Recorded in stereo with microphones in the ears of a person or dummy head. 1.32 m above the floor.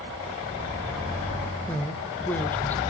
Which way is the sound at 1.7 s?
15° left (ahead or behind).